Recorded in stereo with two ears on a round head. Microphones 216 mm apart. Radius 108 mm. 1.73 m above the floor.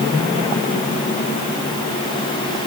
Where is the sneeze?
No sneeze in this recording.